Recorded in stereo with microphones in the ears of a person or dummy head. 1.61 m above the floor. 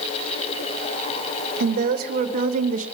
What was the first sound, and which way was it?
A woman speaking, 50° right (ahead or behind).